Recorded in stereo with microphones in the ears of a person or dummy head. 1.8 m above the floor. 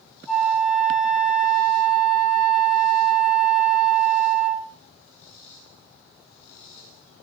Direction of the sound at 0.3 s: Centre (ahead or behind).